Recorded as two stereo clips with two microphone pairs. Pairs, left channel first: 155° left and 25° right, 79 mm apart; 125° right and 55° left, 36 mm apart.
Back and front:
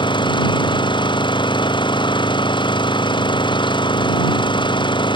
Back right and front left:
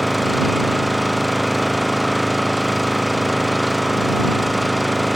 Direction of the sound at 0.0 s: 145° left.